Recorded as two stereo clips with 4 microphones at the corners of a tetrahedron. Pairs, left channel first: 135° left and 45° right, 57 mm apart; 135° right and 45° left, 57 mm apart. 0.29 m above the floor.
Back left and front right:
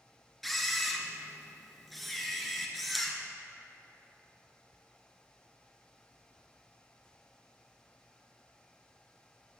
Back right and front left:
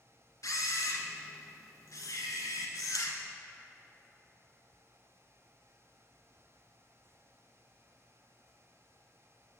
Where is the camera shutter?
140° right, 0.8 m.